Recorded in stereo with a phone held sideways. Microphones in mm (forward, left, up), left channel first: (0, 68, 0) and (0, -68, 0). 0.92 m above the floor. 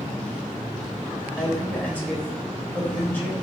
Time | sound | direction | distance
1.4 | a man speaking | 10° left (ahead or behind) | 3 m